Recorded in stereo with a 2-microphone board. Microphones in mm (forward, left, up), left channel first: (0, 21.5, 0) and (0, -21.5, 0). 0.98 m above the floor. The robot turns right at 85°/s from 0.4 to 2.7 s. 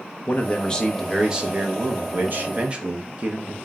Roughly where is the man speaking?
Behind left.